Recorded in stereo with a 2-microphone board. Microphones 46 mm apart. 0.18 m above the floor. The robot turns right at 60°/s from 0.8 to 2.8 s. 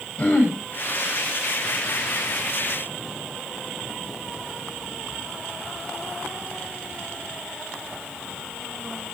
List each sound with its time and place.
0.2 s throat clearing: 35° left (ahead or behind), 9.5 m